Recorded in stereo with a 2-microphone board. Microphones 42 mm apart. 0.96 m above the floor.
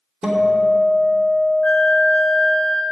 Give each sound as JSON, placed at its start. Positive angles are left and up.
{"t": 0.2, "sound": "a guitar", "side_deg": -15, "distance_m": 1.9}
{"t": 1.6, "sound": "a flute", "side_deg": 30, "distance_m": 1.0}